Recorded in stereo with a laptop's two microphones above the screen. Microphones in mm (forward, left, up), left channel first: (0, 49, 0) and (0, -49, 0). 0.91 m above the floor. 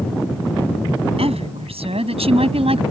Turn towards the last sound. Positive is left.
turn(degrees=-85)